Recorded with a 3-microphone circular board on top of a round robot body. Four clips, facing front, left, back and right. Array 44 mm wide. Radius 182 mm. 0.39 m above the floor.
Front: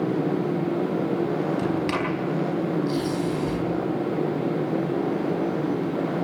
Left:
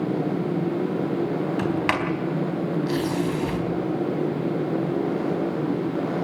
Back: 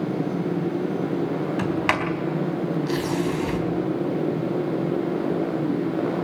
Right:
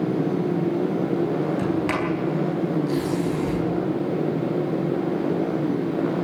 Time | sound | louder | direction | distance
1.6 | a sliding door | even, back 1 dB | 140° left | 4 m